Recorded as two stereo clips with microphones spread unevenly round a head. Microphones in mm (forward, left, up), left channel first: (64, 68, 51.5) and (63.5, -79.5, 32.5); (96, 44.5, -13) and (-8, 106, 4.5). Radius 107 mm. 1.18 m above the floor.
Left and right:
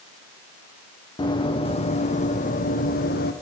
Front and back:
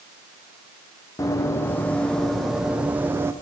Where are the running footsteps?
35° left, 4 m; by 3.3 s 85° left, 4.5 m.